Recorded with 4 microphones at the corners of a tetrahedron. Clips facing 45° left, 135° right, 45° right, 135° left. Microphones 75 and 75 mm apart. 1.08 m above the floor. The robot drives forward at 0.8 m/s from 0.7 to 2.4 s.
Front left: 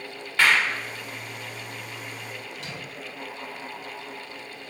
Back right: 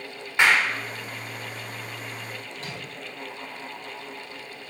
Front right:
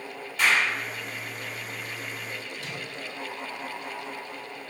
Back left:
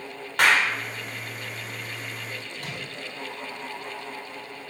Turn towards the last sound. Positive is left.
turn(degrees=175)